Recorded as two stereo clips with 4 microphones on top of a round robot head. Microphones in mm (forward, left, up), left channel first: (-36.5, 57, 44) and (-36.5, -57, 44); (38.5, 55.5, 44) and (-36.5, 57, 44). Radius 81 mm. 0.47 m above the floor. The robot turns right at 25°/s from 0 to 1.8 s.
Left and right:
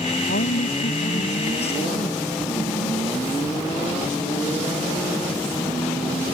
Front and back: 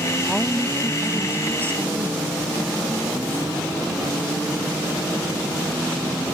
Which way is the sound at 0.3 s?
85° left.